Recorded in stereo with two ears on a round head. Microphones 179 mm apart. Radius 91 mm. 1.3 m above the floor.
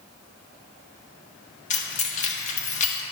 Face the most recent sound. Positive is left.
turn(degrees=40)  # may be behind; listen again after turning